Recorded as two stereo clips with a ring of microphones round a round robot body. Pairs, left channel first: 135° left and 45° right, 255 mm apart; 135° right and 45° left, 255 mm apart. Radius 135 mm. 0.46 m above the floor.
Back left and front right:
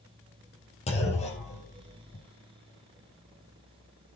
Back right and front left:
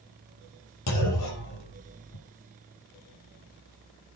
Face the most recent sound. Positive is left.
turn(degrees=-155)